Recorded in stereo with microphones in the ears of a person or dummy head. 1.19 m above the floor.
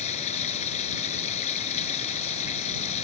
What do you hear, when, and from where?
0.0 s running water: 35° left (ahead or behind)